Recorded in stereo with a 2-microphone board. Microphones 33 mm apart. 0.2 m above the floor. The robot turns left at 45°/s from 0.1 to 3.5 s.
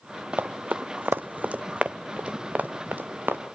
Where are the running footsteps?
75° right (ahead or behind), 1.0 m.